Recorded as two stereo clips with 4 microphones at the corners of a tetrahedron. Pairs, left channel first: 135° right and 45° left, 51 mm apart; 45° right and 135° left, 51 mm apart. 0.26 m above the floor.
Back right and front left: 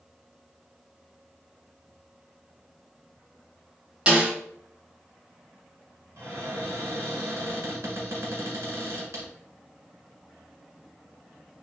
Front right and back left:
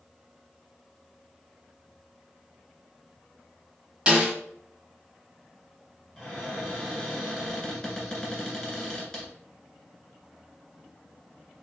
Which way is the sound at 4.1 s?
90° left.